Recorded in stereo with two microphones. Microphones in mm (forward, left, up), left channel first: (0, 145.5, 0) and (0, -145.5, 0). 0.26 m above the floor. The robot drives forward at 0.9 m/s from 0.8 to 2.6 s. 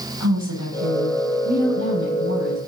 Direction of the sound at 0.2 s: 75° right (ahead or behind).